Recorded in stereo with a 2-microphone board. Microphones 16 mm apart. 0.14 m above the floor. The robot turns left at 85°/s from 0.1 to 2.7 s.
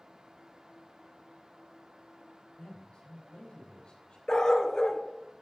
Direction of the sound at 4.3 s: 35° left (ahead or behind).